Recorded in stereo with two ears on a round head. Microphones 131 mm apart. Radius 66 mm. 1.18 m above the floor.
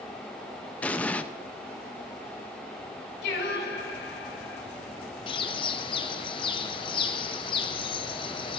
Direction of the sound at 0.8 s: 10° left (ahead or behind).